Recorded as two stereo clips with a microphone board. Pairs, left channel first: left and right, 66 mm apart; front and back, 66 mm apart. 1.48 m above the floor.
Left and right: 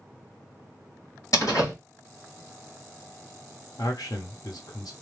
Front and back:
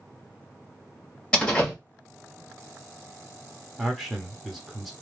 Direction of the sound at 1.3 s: 70° left.